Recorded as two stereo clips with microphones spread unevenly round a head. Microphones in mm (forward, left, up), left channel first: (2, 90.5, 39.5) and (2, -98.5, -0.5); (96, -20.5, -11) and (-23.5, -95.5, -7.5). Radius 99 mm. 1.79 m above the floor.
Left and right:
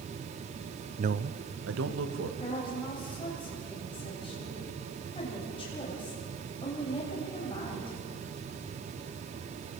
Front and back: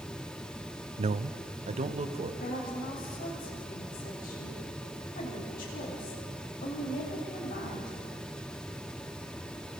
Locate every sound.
1.0 s a man speaking: 150° right, 0.6 m; by 2.3 s 110° right, 2.5 m
2.4 s a woman speaking: 30° left, 8.5 m